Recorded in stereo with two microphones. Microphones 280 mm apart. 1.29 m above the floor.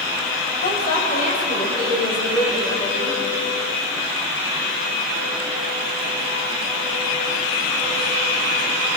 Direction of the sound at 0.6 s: 35° left (ahead or behind).